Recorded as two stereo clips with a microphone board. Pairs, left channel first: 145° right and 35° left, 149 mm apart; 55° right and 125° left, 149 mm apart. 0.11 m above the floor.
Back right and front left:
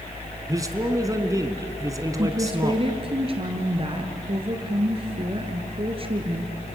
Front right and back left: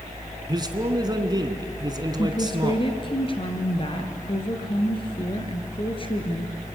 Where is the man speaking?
85° left, 1.6 m.